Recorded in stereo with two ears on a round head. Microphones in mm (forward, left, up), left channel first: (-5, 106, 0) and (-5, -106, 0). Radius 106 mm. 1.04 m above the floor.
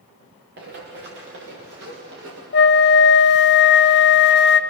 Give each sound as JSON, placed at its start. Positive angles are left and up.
{"t": 0.6, "sound": "running footsteps", "side_deg": -50, "distance_m": 6.5}
{"t": 2.5, "sound": "a flute", "side_deg": 50, "distance_m": 0.9}